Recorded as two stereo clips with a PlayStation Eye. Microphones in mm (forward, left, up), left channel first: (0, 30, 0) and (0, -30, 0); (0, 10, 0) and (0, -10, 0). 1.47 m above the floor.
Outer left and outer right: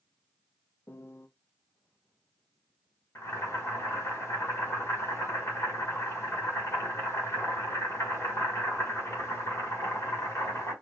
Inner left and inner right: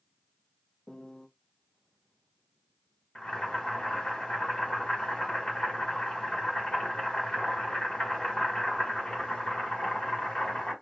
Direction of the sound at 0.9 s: 45° left (ahead or behind).